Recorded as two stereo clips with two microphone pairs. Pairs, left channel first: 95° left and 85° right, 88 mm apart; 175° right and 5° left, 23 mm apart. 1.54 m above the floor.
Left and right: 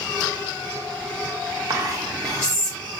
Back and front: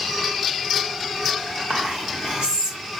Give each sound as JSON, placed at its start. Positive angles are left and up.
{"t": 1.7, "sound": "whispering", "azimuth_deg": -30, "distance_m": 1.1}